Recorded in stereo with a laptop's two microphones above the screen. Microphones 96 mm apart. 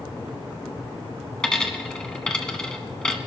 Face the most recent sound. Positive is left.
turn(degrees=10)  # may be behind; listen again after turning